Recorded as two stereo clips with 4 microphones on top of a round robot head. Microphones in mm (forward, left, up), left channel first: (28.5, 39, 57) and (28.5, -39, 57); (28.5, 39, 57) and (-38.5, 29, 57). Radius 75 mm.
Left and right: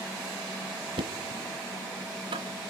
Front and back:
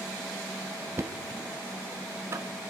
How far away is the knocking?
About 1.0 m.